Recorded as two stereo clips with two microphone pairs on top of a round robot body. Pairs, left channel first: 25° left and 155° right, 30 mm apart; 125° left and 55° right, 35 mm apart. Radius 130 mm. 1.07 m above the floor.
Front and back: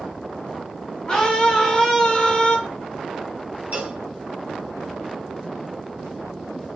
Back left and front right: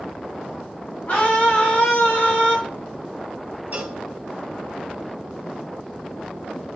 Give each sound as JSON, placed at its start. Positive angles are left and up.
{"t": 1.1, "sound": "a scream", "azimuth_deg": 95, "distance_m": 2.5}
{"t": 3.7, "sound": "a cowbell", "azimuth_deg": -105, "distance_m": 1.2}